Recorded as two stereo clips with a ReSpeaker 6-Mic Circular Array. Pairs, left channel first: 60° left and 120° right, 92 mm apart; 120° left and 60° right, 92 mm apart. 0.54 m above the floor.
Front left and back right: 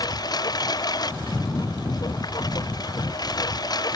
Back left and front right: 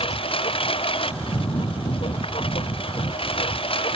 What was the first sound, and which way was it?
A lawn mower, 105° left.